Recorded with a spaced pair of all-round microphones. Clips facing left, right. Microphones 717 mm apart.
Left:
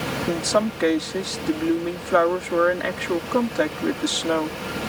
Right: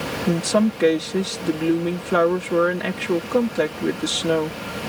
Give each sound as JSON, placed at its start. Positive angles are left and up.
{"t": 0.3, "sound": "a woman speaking", "side_deg": -55}